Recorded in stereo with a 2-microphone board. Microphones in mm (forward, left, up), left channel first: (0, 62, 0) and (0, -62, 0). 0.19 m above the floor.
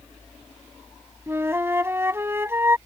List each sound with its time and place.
1.3 s a flute: 20° right (ahead or behind)